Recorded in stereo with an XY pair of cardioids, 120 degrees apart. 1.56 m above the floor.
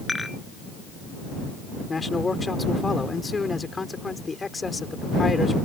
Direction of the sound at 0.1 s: 15° left.